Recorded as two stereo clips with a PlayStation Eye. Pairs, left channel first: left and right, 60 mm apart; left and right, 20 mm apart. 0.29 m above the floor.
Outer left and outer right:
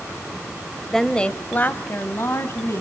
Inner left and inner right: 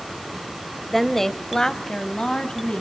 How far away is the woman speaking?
About 1.0 m.